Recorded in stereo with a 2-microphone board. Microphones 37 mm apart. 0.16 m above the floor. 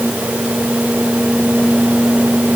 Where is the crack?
I don't hear a crack.